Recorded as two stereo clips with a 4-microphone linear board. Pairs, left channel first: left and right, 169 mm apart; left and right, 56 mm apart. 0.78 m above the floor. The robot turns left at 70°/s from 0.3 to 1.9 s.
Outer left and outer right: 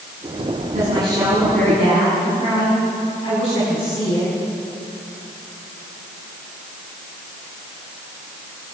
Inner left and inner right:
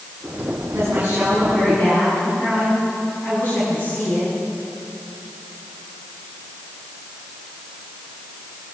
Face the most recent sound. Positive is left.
turn(degrees=145)